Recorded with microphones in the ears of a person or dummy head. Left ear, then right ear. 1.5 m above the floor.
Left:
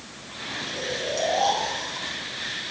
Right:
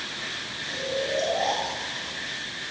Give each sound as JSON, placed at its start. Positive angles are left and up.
{"t": 0.7, "sound": "snoring", "side_deg": 80, "distance_m": 5.0}